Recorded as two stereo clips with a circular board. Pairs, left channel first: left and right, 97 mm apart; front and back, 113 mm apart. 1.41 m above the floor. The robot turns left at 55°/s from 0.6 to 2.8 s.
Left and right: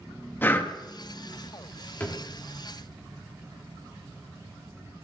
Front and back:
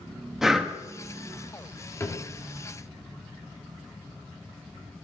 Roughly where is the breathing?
Left.